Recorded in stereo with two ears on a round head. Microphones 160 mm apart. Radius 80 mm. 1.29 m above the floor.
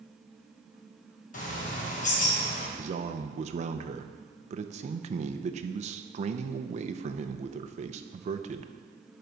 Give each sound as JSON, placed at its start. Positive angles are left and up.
{"t": 1.3, "sound": "a bird", "side_deg": 45, "distance_m": 1.5}
{"t": 2.8, "sound": "a man speaking", "side_deg": -40, "distance_m": 0.6}